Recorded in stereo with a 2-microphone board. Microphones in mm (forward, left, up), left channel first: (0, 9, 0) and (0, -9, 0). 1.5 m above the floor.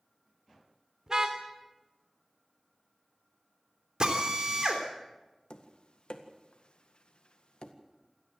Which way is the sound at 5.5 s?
70° left (ahead or behind).